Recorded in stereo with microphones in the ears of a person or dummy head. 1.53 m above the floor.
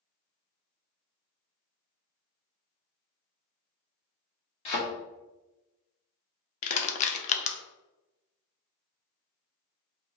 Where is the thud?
30° left (ahead or behind), 1.0 m.